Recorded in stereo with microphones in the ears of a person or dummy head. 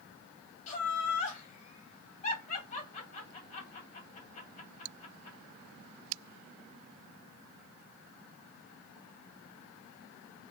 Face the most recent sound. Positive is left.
turn(degrees=40)  # may be behind; listen again after turning